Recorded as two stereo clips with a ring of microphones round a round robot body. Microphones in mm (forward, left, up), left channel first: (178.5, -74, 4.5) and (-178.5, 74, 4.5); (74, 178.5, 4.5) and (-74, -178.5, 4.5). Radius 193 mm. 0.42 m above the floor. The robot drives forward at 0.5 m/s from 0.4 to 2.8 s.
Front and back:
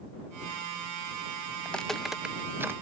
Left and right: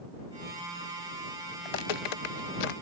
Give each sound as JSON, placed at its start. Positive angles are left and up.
{"t": 1.6, "sound": "footsteps", "azimuth_deg": 65}